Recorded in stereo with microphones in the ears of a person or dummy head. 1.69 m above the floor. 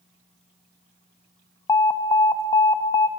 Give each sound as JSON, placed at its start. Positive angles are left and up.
{"t": 1.7, "sound": "an alarm", "side_deg": 15, "distance_m": 0.7}